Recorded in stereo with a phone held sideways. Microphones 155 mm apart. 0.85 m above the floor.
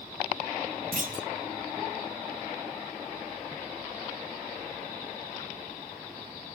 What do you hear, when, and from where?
0.9 s a clunk: 65° right (ahead or behind), 1.5 m